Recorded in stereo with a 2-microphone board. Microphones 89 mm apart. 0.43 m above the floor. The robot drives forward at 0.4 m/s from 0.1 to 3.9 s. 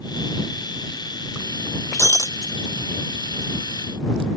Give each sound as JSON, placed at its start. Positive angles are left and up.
{"t": 1.9, "sound": "breaking glass", "side_deg": 30}